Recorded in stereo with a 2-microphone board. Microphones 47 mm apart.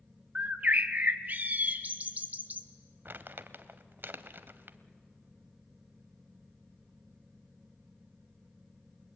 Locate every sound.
0.3 s a bird: 35° right (ahead or behind), 1.1 m
3.0 s crumpling: 50° right (ahead or behind), 0.9 m